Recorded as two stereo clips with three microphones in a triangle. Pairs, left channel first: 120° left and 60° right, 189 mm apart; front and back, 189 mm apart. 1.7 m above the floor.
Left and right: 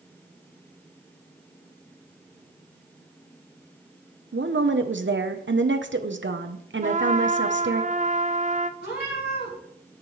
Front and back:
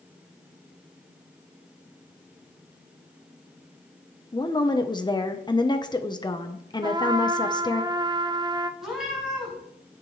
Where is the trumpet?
115° right, 0.6 m.